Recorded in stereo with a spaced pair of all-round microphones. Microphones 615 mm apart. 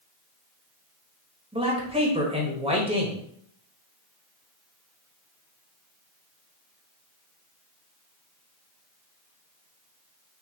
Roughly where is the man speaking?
Centre.